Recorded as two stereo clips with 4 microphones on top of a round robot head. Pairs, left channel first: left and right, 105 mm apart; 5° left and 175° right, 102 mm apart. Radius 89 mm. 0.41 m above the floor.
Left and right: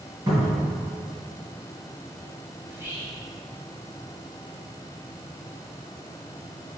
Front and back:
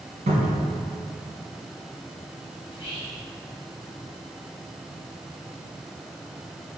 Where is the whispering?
25° right, 1.7 m.